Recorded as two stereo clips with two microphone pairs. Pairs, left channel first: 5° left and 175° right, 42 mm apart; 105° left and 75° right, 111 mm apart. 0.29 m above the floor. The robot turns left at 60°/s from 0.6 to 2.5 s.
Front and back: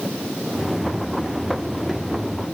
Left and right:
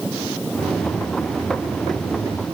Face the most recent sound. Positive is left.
No sound to turn to.